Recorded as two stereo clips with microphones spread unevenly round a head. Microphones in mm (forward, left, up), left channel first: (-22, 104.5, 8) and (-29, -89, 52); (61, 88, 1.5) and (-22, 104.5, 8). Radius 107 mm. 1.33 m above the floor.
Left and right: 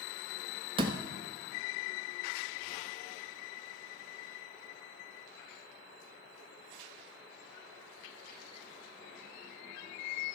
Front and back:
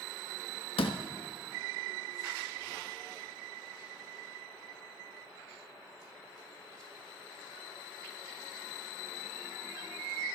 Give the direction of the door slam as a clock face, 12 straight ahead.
1 o'clock.